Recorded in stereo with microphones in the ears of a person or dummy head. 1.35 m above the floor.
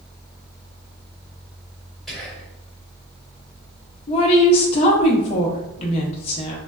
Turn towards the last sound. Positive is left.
turn(degrees=35)  # may be behind; listen again after turning